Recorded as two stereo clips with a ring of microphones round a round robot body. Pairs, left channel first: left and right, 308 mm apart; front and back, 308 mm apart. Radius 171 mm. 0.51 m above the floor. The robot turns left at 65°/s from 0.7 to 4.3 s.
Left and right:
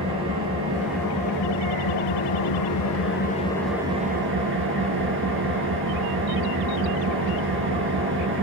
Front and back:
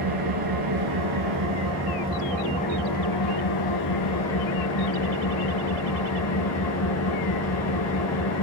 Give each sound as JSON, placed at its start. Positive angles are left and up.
{"t": 0.0, "sound": "an engine running", "azimuth_deg": -165, "distance_m": 3.5}